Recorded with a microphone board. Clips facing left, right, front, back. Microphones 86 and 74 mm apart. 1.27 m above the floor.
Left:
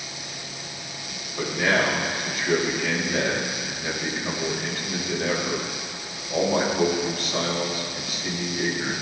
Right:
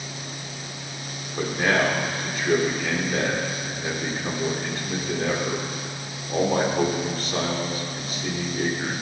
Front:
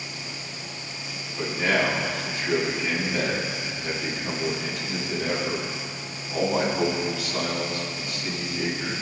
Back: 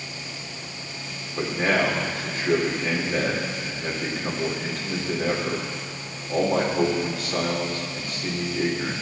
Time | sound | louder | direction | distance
1.4 | a man speaking | right 1 dB, back 1 dB | 140° right | 3.5 m